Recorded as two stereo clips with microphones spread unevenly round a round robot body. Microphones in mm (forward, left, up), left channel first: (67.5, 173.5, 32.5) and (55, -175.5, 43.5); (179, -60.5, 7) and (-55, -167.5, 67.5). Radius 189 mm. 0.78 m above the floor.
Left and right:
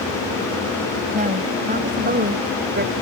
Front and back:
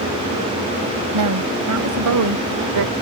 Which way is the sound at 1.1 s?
165° right.